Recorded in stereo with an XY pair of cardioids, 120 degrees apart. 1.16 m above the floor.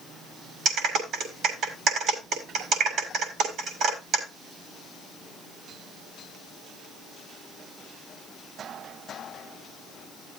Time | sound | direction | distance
0.7 | a clap | 55° right | 6.5 m